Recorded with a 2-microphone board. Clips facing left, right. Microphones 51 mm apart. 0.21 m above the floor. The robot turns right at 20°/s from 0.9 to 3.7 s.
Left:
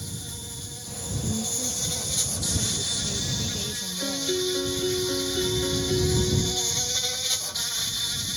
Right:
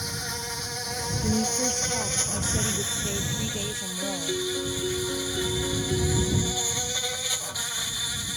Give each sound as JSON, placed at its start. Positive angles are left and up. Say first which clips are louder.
{"t": 0.0, "sound": "an insect", "louder": "right 6 dB", "azimuth_deg": -70}
{"t": 1.2, "sound": "a woman speaking", "louder": "right 6 dB", "azimuth_deg": -80}
{"t": 4.0, "sound": "a piano", "louder": "left 3 dB", "side_deg": 15}